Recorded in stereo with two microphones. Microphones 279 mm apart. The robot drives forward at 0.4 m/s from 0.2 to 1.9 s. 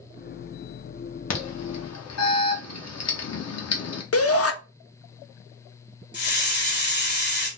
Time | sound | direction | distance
1.3 | an alarm | 85° left | 0.7 m
4.1 | a shout | 65° left (ahead or behind) | 0.5 m
6.1 | a hiss | 45° left (ahead or behind) | 1.2 m